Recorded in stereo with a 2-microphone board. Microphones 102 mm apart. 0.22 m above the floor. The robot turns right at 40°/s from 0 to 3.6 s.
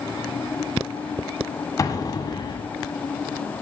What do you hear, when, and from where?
1.8 s an explosion: 55° left, 1.4 m; by 2.7 s 90° left, 1.4 m